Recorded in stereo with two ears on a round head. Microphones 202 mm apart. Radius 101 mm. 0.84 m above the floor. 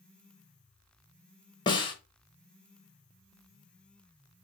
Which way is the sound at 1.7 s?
20° left (ahead or behind).